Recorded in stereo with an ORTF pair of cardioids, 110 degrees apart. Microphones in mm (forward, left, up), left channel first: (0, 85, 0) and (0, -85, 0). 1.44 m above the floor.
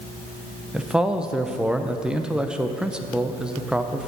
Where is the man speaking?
5° right, 0.8 m.